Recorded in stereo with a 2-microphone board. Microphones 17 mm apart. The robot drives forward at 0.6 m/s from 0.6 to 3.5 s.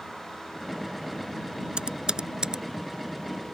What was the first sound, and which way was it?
Typing on a keyboard, 75° right (ahead or behind).